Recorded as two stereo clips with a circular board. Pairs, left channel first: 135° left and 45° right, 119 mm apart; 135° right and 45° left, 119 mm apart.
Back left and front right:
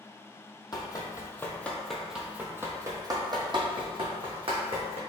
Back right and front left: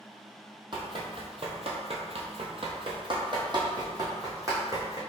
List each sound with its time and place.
0.7 s running footsteps: 85° left, 1.1 m; by 5.0 s 20° right, 1.9 m